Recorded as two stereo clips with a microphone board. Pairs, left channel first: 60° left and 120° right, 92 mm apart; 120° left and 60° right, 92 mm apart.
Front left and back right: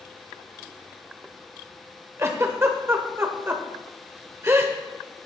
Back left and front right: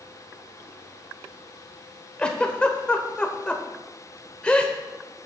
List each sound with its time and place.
2.2 s a giggle: 170° right, 0.8 m